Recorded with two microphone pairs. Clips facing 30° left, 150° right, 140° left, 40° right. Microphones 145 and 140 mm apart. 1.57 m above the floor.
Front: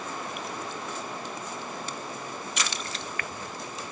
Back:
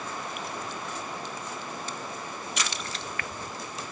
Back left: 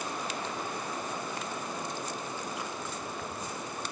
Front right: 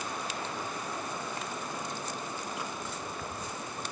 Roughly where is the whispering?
No whispering in this recording.